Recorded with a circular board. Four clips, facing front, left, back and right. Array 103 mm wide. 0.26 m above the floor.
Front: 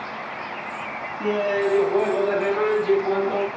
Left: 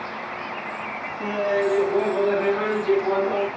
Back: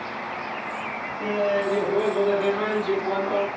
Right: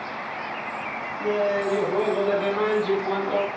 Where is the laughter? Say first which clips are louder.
Left 1 dB, front 2 dB; 20° left, 2 m; by 3.5 s 105° left, 1.4 m.